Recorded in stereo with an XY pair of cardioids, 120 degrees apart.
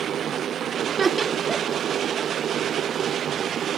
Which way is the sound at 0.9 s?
25° right.